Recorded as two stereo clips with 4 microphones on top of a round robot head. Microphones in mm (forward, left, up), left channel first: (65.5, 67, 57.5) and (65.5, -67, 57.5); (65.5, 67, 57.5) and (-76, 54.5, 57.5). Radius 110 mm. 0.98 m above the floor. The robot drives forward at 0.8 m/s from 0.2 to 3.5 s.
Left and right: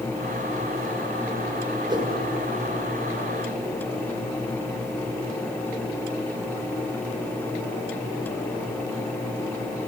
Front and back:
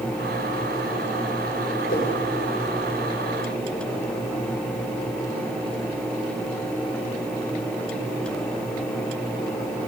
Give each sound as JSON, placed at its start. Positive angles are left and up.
{"t": 1.9, "sound": "a whoosh", "azimuth_deg": -35, "distance_m": 3.0}